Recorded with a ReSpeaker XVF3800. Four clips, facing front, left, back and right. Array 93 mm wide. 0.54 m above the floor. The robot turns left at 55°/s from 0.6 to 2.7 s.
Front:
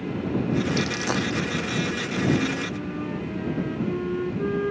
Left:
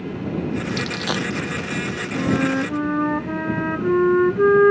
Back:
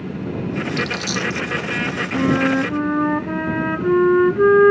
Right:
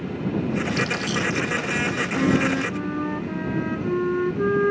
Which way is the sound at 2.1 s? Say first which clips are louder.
Left 1 dB, back 8 dB; straight behind.